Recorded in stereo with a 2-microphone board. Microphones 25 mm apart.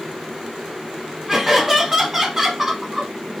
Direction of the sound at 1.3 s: 15° right (ahead or behind).